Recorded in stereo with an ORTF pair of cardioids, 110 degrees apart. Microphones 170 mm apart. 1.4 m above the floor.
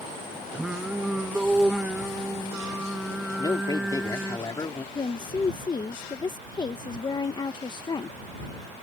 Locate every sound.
0.5 s singing: 5° right
3.4 s a man speaking: 20° left
5.0 s a woman speaking: 25° left